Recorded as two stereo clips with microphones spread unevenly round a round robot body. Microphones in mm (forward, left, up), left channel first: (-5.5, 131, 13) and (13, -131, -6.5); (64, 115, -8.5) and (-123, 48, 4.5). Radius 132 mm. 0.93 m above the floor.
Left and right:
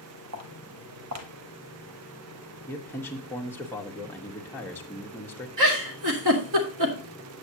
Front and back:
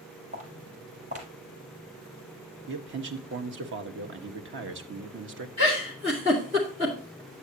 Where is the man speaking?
175° left, 1.3 m.